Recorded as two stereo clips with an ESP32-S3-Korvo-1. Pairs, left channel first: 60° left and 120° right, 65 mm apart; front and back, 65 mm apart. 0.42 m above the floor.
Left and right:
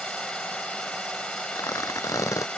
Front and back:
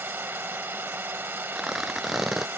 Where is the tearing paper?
95° left.